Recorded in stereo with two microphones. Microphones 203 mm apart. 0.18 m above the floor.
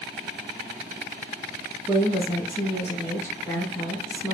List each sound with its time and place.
1.9 s a woman speaking: 15° left (ahead or behind), 1.4 m